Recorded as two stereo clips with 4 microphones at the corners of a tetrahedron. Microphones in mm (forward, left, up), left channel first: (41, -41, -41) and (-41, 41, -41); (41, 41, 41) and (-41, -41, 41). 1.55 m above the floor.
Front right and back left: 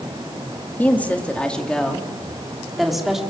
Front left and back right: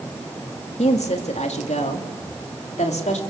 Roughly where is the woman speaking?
Ahead left.